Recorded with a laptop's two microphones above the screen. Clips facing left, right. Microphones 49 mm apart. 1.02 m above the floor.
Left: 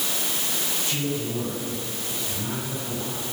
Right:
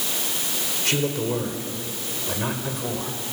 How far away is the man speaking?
About 5 m.